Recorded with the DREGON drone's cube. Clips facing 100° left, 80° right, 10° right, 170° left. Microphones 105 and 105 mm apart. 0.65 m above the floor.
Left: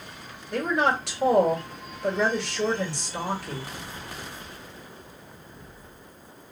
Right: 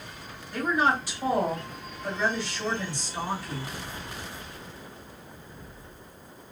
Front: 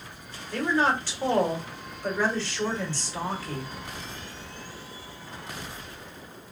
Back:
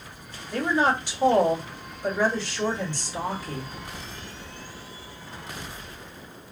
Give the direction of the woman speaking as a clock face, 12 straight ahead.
9 o'clock.